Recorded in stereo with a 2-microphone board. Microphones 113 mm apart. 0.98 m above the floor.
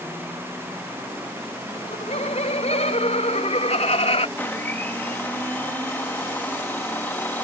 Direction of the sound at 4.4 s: 20° left (ahead or behind).